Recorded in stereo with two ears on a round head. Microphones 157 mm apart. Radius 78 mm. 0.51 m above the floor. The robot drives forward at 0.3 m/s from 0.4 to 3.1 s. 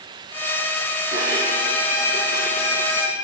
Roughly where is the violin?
Left.